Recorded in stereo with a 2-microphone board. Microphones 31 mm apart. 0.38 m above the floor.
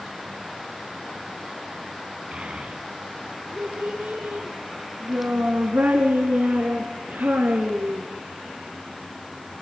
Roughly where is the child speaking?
Right.